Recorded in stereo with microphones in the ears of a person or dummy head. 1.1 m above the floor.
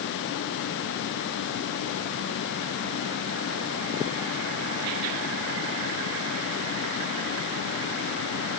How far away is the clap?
No clap in this recording.